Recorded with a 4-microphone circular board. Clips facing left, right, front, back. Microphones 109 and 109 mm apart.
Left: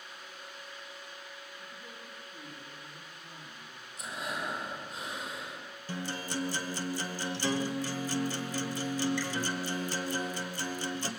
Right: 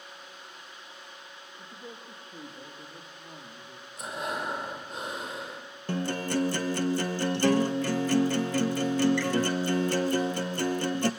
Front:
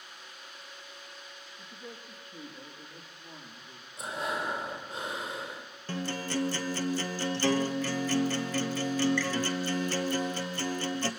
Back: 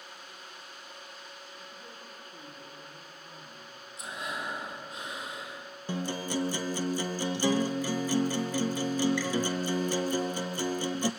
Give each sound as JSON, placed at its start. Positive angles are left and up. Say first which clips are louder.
{"t": 1.6, "sound": "a man speaking", "louder": "right 3 dB, front 1 dB", "azimuth_deg": -75, "distance_m": 3.5}
{"t": 4.0, "sound": "breathing", "louder": "right 4 dB, front 4 dB", "azimuth_deg": -60, "distance_m": 4.5}
{"t": 5.9, "sound": "a guitar", "louder": "right 8 dB, back 1 dB", "azimuth_deg": -105, "distance_m": 1.0}